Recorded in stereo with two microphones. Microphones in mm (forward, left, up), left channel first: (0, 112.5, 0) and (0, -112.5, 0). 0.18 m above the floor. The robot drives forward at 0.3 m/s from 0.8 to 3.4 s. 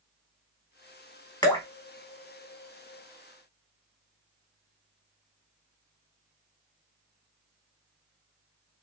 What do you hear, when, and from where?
1.4 s dripping: 20° left (ahead or behind), 0.6 m